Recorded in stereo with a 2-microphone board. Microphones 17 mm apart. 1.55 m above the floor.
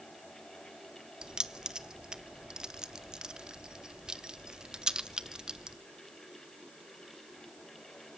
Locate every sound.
1.2 s keys jangling: 50° right (ahead or behind), 0.9 m